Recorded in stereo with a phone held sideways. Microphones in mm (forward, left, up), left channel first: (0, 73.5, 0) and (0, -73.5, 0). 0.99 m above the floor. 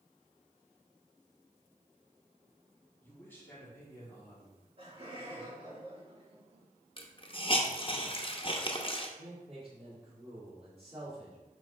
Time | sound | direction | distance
3.0 | a man speaking | 15° left (ahead or behind) | 2.5 m
4.4 | laughter | 40° right (ahead or behind) | 2.5 m
7.0 | a hiss | 35° left (ahead or behind) | 0.9 m
9.2 | a man speaking | 40° right (ahead or behind) | 3 m